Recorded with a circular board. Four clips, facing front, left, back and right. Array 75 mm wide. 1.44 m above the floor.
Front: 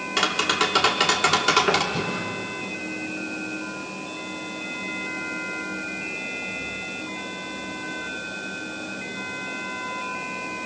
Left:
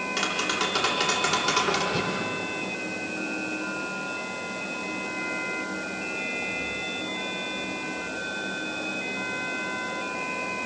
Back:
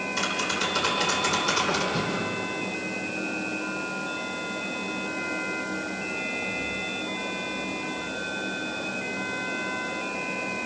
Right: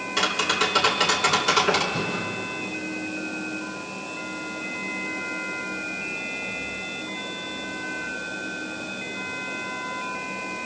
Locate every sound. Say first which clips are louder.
0.2 s tapping: right 5 dB, front 7 dB; 5° right, 3.5 m
1.9 s breathing: even, even; 70° left, 5 m